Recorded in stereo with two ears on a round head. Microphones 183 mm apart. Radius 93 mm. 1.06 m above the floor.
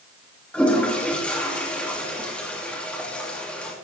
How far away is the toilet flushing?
About 1.9 m.